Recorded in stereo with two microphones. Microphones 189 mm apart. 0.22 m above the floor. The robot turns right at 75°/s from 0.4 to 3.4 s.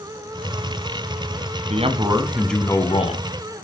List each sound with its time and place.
1.7 s a man speaking: 55° right, 1.4 m; by 3.2 s 60° left, 1.4 m